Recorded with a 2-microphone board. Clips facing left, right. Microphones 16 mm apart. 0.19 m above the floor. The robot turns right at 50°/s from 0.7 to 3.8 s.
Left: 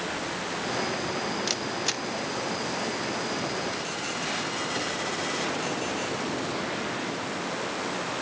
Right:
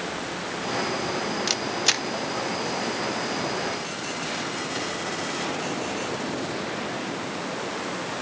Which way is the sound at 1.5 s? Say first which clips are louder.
Right 5 dB; 20° right (ahead or behind).